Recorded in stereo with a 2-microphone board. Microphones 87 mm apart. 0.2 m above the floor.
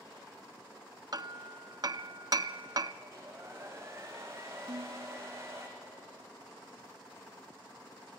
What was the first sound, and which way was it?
Hammering, 50° right (ahead or behind).